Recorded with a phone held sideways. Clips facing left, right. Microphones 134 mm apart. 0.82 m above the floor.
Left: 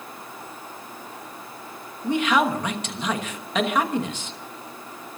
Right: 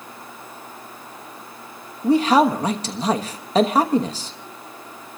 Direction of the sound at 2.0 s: 35° right (ahead or behind).